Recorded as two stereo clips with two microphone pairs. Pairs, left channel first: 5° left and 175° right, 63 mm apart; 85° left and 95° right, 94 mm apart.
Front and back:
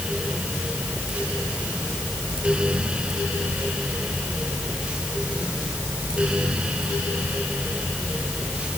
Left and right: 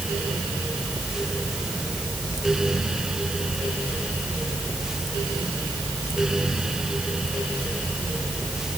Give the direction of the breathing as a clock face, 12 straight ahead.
No breathing in this recording.